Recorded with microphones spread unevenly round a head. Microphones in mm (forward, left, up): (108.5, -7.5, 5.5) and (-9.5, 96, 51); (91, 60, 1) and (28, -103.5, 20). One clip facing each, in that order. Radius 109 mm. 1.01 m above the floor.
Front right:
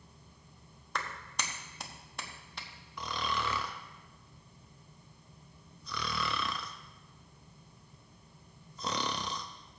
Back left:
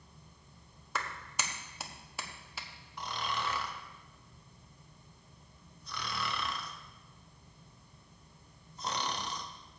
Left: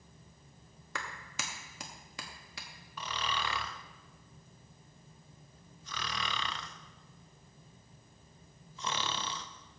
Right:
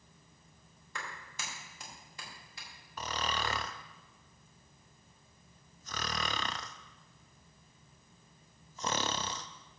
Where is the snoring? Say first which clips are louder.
Front right 2 dB, right 1 dB; 60° right, 0.6 m.